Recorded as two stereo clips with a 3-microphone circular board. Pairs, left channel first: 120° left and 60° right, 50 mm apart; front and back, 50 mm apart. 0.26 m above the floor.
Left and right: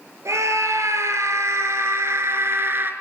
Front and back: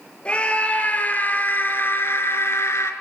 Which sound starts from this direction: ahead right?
A scream, at 0.2 s.